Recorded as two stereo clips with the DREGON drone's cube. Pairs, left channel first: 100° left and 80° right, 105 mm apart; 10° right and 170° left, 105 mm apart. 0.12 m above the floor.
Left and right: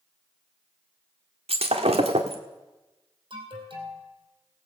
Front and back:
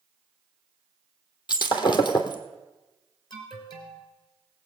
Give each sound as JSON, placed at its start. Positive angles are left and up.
{"t": 1.5, "sound": "breaking glass", "azimuth_deg": -60, "distance_m": 1.4}
{"t": 3.3, "sound": "an alarm", "azimuth_deg": -50, "distance_m": 3.0}